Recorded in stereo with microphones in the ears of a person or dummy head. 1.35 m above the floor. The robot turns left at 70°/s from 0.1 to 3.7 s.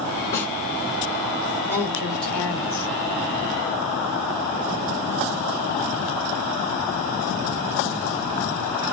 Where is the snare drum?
20° left (ahead or behind), 1.9 m; by 0.5 s 10° left (ahead or behind), 1.9 m.